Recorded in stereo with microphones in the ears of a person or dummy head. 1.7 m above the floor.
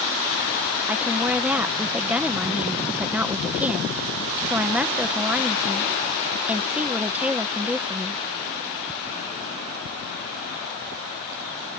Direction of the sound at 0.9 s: Centre (ahead or behind).